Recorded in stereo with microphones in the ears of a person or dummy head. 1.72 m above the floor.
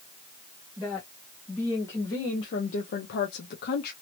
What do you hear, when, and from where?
0.8 s a woman speaking: 5° right (ahead or behind), 1.6 m; by 3.9 s 60° left (ahead or behind), 1.0 m